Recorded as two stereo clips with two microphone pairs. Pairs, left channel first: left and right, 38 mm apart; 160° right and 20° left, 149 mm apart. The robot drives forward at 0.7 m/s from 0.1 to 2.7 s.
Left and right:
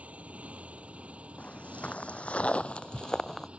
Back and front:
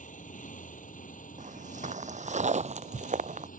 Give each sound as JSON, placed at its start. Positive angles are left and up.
{"t": 0.0, "sound": "a motorcycle", "azimuth_deg": -140}
{"t": 1.4, "sound": "footsteps", "azimuth_deg": 45}